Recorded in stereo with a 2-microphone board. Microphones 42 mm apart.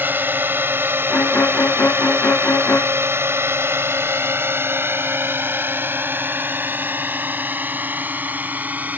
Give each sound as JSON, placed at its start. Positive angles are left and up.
{"t": 0.0, "sound": "a drone", "side_deg": -55}
{"t": 1.1, "sound": "a violin", "side_deg": 60}